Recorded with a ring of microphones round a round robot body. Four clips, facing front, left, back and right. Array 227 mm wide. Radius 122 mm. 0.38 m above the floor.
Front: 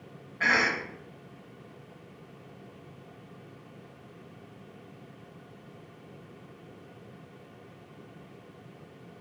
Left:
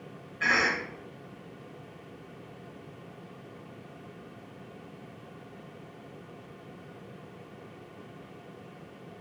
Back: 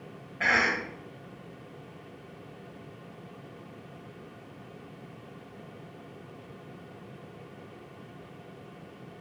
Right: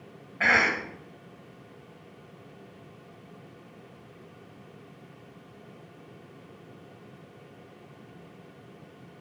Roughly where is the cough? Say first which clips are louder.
Right 3 dB, even; right.